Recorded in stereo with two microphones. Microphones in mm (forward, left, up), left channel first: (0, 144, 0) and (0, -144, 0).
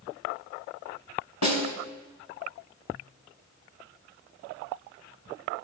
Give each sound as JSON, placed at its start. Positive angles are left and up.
{"t": 1.4, "sound": "a snare drum", "side_deg": 70, "distance_m": 1.7}